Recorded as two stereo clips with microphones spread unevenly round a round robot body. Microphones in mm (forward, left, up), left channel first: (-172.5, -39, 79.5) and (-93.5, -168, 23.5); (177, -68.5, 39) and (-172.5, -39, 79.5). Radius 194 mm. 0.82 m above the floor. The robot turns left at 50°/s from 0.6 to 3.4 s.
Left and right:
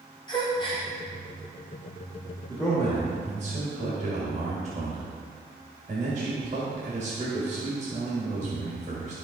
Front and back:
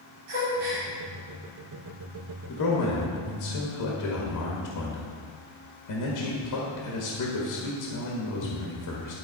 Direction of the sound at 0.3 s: 170° right.